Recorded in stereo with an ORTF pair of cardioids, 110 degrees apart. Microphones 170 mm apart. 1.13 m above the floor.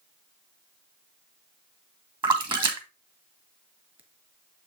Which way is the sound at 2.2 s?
30° right.